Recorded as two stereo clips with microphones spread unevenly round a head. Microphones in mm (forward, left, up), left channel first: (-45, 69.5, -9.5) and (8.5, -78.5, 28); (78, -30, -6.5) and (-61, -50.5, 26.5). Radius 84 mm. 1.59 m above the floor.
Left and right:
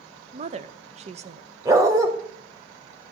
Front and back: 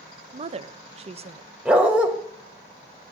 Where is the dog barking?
110° right, 1.7 m.